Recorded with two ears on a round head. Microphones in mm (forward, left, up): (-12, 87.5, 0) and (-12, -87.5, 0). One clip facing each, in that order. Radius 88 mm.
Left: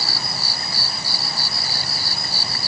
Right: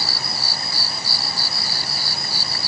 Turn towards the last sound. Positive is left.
No sound to turn to.